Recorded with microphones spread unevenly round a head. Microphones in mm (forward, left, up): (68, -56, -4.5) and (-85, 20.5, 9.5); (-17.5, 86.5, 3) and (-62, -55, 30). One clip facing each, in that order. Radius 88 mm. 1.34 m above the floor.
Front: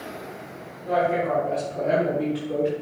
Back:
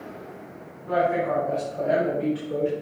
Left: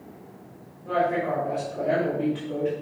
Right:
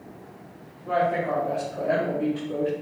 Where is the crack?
I don't hear a crack.